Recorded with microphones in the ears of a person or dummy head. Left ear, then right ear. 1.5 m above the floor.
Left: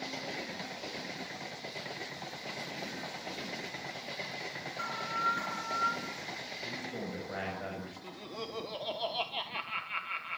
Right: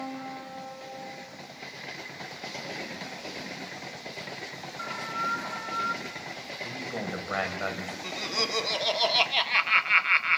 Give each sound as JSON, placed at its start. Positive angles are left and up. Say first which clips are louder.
{"t": 4.8, "sound": "an alarm", "louder": "right 2 dB", "side_deg": 20, "distance_m": 5.0}
{"t": 6.6, "sound": "a man speaking", "louder": "right 8 dB", "side_deg": -50, "distance_m": 8.5}
{"t": 8.0, "sound": "laughter", "louder": "right 16 dB", "side_deg": -60, "distance_m": 1.3}